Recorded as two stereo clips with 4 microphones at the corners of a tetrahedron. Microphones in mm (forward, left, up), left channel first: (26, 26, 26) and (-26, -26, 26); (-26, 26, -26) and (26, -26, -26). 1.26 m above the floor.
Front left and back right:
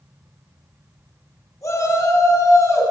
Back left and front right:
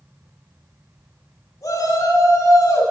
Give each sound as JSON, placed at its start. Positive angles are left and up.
{"t": 1.6, "sound": "a shout", "azimuth_deg": 90, "distance_m": 8.0}